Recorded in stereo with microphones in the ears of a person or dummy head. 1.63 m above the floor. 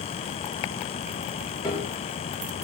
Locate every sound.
1.6 s a piano: 15° left (ahead or behind), 2.5 m